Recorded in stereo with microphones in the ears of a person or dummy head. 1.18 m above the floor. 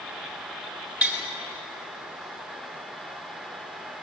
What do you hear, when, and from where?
1.0 s tapping: centre (ahead or behind), 0.8 m